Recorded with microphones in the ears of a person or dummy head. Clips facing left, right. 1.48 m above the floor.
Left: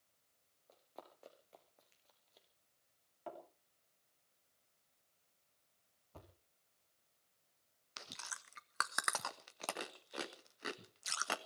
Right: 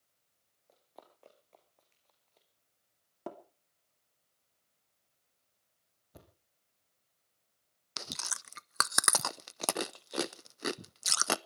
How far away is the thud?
About 3.5 m.